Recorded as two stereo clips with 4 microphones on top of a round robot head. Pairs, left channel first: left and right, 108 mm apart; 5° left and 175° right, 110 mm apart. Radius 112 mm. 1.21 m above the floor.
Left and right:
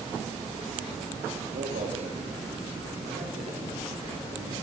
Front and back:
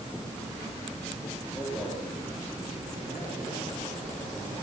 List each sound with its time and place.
1.5 s a man speaking: 90° right, 4 m; by 4.6 s 110° right, 6.5 m